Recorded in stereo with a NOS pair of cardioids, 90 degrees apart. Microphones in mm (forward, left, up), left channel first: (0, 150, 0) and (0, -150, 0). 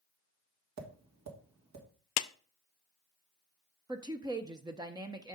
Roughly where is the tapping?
Ahead right.